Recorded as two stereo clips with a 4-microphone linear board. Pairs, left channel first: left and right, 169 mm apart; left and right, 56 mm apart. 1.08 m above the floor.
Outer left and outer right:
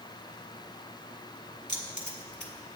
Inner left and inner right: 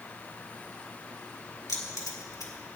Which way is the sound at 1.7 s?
85° left.